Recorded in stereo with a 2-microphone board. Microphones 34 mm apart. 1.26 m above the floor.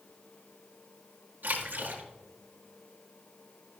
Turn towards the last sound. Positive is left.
turn(degrees=-75)  # may be behind; listen again after turning